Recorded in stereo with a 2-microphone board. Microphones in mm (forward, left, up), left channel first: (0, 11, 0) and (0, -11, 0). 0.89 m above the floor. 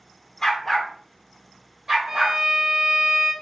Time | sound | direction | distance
0.4 | a dog barking | 25° left (ahead or behind) | 0.6 m
2.1 | a violin | 45° right (ahead or behind) | 1.3 m